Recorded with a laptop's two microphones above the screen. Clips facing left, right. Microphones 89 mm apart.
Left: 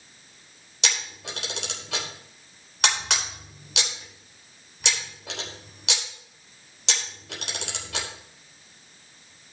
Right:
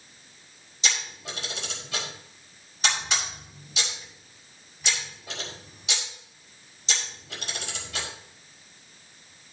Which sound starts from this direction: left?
A camera shutter, at 0.8 s.